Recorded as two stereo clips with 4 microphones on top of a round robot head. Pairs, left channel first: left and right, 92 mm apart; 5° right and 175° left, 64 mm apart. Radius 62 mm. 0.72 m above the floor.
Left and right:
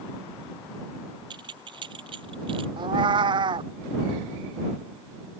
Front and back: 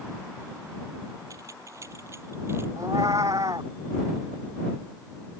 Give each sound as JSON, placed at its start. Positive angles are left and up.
{"t": 1.3, "sound": "keys jangling", "azimuth_deg": -130}
{"t": 2.8, "sound": "a cat meowing", "azimuth_deg": -125}